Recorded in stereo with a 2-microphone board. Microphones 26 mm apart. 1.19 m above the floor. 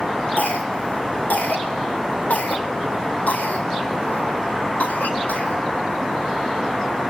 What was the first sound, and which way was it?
A cough, 80° left.